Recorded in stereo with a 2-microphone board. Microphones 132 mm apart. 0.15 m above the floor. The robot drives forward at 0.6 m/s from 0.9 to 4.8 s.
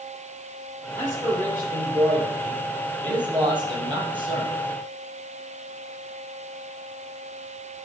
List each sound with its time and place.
1.0 s a man speaking: 25° right (ahead or behind), 5.5 m; by 4.5 s 40° right (ahead or behind), 3.5 m